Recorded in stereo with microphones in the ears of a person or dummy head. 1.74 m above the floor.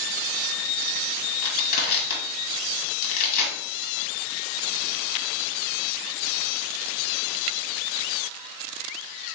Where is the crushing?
50° left (ahead or behind), 1.4 m.